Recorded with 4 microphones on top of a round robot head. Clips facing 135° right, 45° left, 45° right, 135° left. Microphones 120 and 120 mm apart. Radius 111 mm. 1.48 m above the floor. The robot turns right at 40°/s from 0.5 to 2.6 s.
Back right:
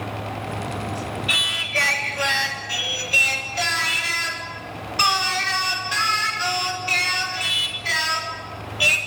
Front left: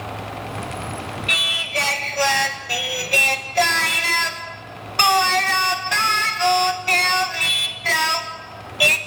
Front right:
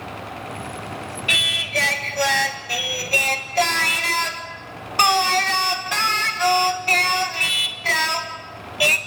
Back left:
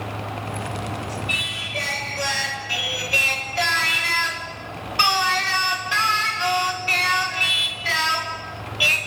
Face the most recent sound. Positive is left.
turn(degrees=5)